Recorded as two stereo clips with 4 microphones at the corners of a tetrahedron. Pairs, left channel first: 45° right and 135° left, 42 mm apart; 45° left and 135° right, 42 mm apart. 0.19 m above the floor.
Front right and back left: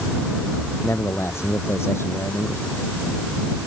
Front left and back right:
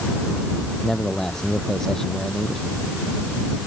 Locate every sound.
0.8 s a man speaking: 35° right